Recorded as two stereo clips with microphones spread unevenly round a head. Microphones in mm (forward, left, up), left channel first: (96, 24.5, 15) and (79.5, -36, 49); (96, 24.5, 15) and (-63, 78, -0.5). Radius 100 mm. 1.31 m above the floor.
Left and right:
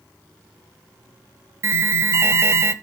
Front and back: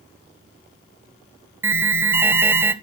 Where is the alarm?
170° right, 0.8 m.